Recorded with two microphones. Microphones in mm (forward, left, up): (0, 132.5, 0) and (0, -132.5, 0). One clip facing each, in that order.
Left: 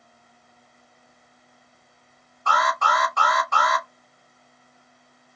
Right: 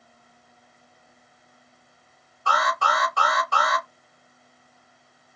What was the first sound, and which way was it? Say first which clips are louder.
An alarm: left 1 dB; 35° right (ahead or behind).